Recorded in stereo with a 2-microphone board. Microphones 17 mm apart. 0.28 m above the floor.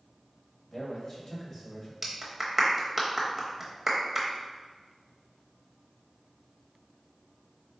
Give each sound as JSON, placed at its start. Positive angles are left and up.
{"t": 0.7, "sound": "a man speaking", "side_deg": 45, "distance_m": 1.4}
{"t": 2.0, "sound": "a clap", "side_deg": -15, "distance_m": 0.7}